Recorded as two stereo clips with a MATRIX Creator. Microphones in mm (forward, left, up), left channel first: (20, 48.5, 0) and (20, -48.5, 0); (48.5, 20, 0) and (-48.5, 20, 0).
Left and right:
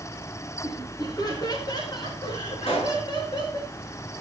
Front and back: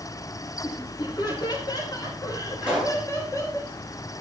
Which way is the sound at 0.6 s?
40° left.